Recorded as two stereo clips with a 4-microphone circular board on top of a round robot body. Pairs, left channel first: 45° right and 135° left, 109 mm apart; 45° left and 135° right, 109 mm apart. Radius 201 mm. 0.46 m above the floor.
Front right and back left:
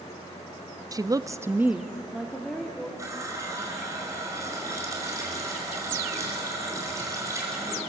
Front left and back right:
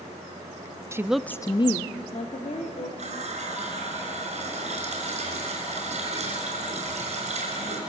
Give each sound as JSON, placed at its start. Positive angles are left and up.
{"t": 0.9, "sound": "a woman speaking", "azimuth_deg": 175, "distance_m": 1.0}
{"t": 3.0, "sound": "a running tap", "azimuth_deg": -160, "distance_m": 5.5}